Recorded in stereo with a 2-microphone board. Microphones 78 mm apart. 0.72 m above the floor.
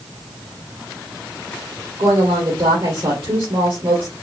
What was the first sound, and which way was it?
A woman speaking, 70° right (ahead or behind).